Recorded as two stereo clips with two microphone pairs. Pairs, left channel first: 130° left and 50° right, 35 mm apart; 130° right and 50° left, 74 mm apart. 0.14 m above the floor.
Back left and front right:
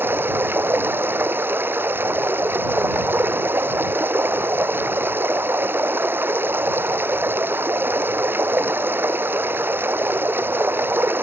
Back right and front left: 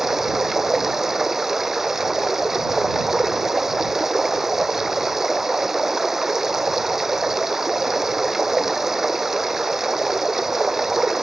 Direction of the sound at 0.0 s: 40° right.